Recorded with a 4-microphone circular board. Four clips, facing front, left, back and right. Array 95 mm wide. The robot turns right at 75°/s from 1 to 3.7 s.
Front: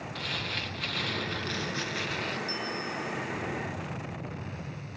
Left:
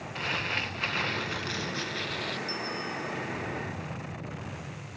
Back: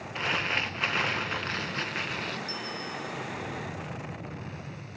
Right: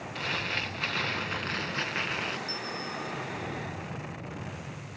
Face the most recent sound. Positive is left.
turn(degrees=135)